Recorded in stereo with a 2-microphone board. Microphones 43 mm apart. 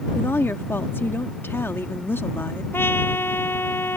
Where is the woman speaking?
65° left (ahead or behind).